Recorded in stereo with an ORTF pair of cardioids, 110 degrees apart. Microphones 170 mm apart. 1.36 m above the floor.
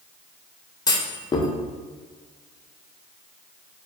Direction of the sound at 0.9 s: 25° left.